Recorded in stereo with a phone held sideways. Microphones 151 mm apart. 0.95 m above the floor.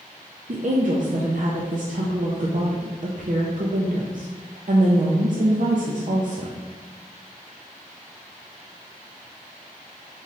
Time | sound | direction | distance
0.5 | a woman speaking | 60° right (ahead or behind) | 0.5 m